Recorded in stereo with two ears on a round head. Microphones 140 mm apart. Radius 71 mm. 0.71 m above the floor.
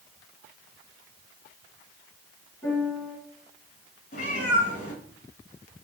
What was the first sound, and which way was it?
A piano, 10° left (ahead or behind).